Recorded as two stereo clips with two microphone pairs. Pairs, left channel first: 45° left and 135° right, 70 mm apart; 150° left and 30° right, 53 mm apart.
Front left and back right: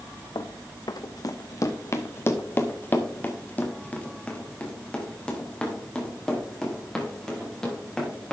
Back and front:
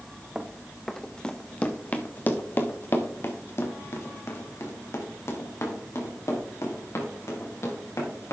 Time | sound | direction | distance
0.3 | running footsteps | 50° left | 1.0 m